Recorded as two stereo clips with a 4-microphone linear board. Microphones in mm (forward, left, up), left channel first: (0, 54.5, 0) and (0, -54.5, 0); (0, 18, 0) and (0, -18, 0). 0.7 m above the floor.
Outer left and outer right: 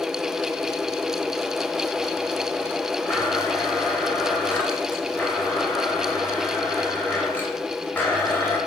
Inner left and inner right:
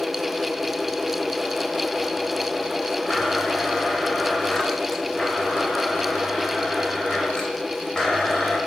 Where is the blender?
15° left (ahead or behind), 2.5 m.